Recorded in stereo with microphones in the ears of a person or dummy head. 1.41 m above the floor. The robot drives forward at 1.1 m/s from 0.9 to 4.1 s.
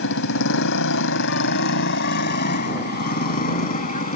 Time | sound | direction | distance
0.0 | a motorcycle | 70° left (ahead or behind) | ?